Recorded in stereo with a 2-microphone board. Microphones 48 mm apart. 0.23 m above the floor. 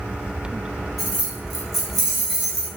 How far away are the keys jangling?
About 0.8 m.